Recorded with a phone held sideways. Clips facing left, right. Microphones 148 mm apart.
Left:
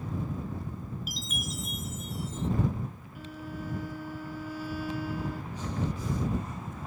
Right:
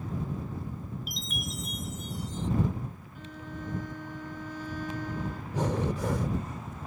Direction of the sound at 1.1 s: Centre (ahead or behind).